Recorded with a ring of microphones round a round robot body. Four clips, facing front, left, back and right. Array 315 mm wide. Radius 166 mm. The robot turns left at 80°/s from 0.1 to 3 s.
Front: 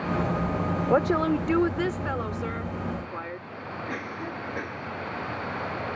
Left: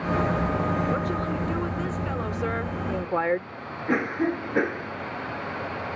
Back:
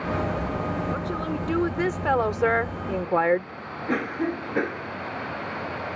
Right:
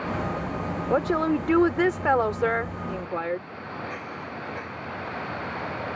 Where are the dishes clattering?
No dishes clattering in this recording.